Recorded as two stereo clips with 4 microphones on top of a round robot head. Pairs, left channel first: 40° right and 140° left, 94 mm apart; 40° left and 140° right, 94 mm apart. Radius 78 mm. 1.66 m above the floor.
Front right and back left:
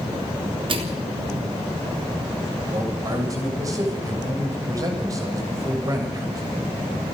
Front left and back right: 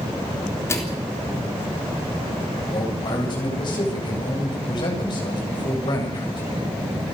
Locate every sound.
0.7 s a microwave: 105° left, 3.5 m
2.7 s a man speaking: 85° left, 7.5 m